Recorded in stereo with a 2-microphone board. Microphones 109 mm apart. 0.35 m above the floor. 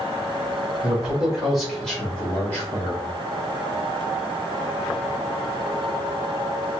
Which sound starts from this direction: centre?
A man speaking, at 0.8 s.